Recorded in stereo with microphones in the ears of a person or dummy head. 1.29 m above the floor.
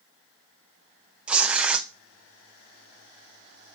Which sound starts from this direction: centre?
Tearing paper, at 1.3 s.